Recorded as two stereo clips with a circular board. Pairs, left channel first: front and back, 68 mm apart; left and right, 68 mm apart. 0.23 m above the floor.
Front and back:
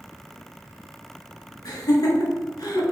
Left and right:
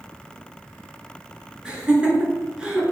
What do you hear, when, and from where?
1.6 s laughter: 15° right, 3 m